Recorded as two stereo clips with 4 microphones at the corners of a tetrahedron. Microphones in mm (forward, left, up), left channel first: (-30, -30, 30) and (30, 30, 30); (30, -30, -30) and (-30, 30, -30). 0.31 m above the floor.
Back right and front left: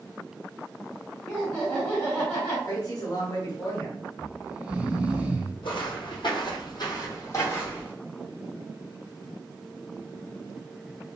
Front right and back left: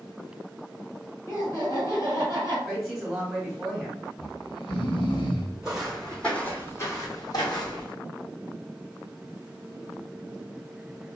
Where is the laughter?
60° right, 1.9 m.